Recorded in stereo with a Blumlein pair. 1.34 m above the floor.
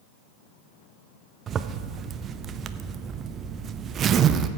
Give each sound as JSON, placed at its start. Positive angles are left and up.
{"t": 1.5, "sound": "a zipper", "azimuth_deg": -25, "distance_m": 0.5}